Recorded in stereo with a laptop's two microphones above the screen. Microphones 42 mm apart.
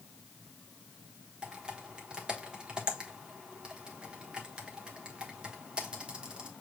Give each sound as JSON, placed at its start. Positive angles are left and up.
{"t": 1.4, "sound": "typing on a keyboard", "side_deg": -25, "distance_m": 1.2}